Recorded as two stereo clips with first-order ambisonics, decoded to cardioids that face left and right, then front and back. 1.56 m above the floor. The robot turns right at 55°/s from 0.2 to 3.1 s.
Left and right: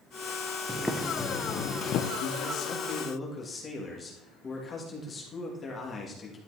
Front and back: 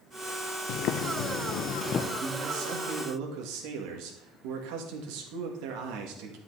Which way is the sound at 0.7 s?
10° right.